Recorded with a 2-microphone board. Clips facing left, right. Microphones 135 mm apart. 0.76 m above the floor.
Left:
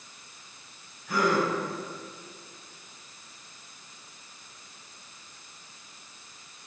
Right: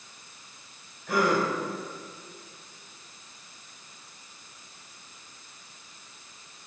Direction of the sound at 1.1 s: 65° right (ahead or behind).